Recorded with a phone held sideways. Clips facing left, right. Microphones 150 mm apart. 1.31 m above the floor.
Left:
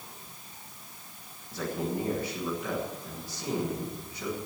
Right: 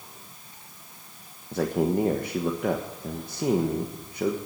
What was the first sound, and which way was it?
A man speaking, 55° right (ahead or behind).